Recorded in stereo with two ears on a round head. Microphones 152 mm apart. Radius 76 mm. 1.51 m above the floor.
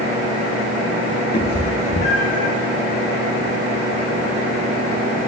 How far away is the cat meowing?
About 1.2 m.